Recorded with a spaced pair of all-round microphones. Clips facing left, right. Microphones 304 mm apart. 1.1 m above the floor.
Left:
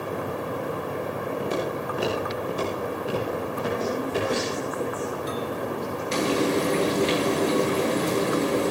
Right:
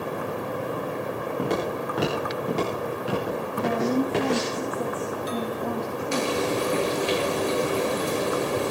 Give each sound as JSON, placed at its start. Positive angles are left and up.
{"t": 1.4, "sound": "footsteps", "side_deg": -80, "distance_m": 9.5}
{"t": 3.6, "sound": "a woman speaking", "side_deg": -65, "distance_m": 2.5}
{"t": 6.1, "sound": "frying", "side_deg": 25, "distance_m": 9.5}